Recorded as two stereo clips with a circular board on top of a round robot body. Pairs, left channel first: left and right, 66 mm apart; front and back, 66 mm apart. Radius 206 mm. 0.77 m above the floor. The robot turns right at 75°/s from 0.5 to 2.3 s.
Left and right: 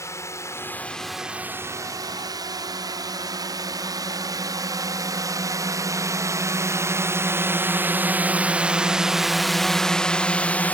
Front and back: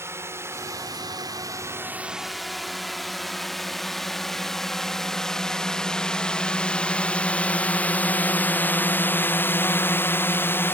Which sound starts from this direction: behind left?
A drone, at 0.0 s.